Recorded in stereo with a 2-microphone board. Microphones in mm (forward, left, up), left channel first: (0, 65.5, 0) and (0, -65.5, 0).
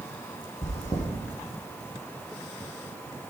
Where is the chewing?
65° left (ahead or behind), 6 m.